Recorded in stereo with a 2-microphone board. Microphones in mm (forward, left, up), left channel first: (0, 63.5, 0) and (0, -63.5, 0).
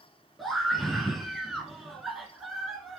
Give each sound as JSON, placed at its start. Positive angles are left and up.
{"t": 0.4, "sound": "a scream", "side_deg": 0, "distance_m": 1.4}